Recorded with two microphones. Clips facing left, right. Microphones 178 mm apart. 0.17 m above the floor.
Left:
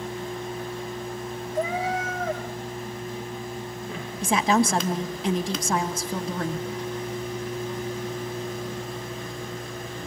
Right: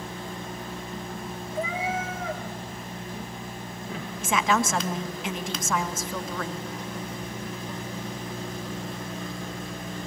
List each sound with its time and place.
1.6 s a cat meowing: 40° left (ahead or behind), 3.5 m
4.2 s a woman speaking: 35° left (ahead or behind), 1.3 m